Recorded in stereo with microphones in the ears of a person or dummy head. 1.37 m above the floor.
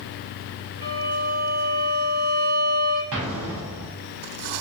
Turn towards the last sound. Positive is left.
turn(degrees=-70)  # may be behind; listen again after turning